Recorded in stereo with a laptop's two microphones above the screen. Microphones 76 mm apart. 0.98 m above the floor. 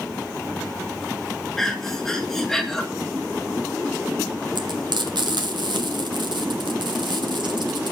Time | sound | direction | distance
1.6 | breathing | 5° left (ahead or behind) | 1.3 m
4.5 | frying | 75° right (ahead or behind) | 1.2 m